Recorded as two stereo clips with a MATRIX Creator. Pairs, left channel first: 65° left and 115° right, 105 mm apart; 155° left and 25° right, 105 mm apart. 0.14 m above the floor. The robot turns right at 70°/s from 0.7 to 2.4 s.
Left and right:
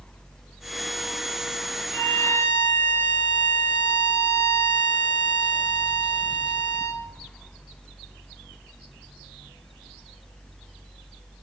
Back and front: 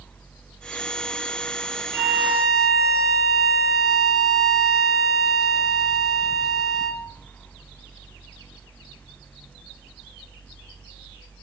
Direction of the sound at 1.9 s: 10° left.